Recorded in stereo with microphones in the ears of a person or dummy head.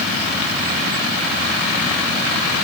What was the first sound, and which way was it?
Only background noise.